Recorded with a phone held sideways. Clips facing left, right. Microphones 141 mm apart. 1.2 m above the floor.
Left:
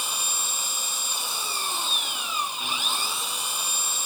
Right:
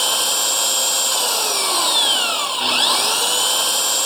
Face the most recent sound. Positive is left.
turn(degrees=-85)